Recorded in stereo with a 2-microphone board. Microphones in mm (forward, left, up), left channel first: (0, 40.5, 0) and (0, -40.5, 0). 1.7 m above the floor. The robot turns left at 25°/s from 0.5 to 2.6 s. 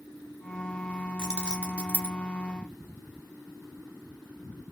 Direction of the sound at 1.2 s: 10° right (ahead or behind).